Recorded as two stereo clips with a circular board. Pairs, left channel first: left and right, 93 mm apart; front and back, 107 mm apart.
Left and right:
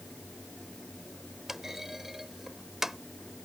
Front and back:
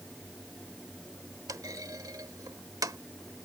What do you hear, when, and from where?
1.5 s a clunk: 175° right